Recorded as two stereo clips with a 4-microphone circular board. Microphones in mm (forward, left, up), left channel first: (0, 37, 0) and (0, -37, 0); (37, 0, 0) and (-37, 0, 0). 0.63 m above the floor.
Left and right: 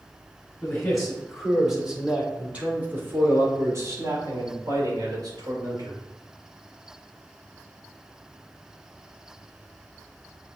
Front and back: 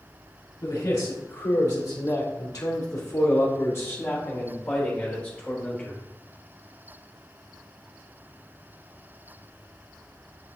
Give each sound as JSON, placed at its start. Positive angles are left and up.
{"t": 0.6, "sound": "a man speaking", "azimuth_deg": 10, "distance_m": 2.5}